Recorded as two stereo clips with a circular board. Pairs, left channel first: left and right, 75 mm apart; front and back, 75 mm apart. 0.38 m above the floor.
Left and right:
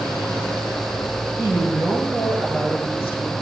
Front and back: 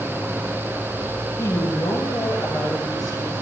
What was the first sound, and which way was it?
A woman speaking, 45° right.